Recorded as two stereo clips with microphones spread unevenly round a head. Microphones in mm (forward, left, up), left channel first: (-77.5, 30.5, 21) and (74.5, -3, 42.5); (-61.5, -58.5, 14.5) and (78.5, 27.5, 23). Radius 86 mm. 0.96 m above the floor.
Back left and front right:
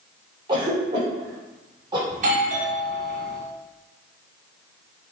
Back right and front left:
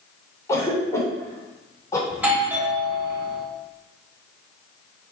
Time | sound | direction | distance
0.5 | a cough | 75° right | 3 m
2.1 | a doorbell | 50° right | 2.5 m